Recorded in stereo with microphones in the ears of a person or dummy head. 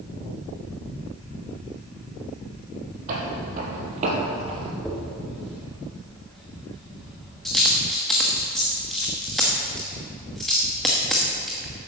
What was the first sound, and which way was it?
Footsteps, 45° right (ahead or behind).